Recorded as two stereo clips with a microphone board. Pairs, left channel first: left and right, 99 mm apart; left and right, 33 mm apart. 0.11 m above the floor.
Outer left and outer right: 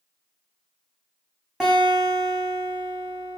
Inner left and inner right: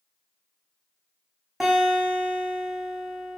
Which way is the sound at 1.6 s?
10° right (ahead or behind).